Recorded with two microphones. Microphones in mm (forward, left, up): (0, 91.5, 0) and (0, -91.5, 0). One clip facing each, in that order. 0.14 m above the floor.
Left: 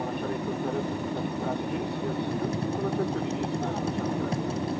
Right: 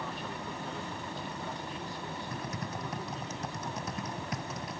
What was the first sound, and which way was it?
An aircraft, 55° left (ahead or behind).